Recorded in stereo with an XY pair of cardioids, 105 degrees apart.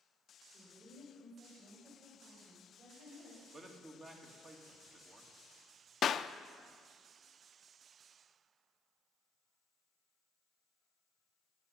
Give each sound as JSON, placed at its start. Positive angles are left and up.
{"t": 0.5, "sound": "a woman speaking", "azimuth_deg": -45, "distance_m": 5.5}
{"t": 3.5, "sound": "a man speaking", "azimuth_deg": -40, "distance_m": 2.5}
{"t": 6.0, "sound": "a clap", "azimuth_deg": 50, "distance_m": 0.5}